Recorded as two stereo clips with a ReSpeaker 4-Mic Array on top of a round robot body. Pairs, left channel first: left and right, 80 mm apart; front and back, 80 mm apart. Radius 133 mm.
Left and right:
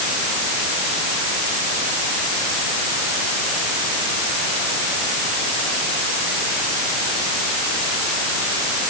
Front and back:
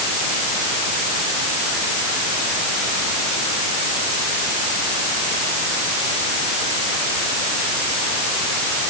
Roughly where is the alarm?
I don't hear an alarm.